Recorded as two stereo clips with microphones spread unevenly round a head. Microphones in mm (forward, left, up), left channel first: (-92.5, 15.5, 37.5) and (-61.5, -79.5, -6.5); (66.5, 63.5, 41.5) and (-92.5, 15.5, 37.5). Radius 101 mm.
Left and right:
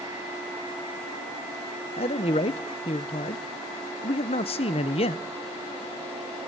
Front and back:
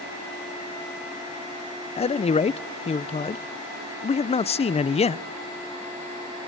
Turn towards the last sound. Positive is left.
turn(degrees=60)